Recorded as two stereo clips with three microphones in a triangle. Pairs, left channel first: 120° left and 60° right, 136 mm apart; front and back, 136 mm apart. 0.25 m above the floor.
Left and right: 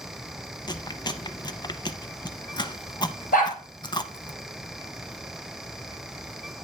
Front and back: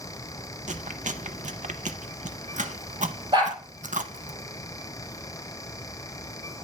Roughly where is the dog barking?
Behind left.